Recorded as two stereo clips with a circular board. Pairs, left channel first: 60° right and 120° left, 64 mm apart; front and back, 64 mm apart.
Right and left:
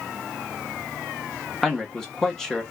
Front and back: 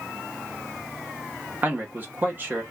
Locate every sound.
1.6 s a man speaking: 140° right, 1.0 m